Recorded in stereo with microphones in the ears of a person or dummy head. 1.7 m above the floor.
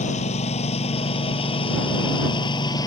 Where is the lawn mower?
40° left (ahead or behind); by 2.9 s 20° left (ahead or behind).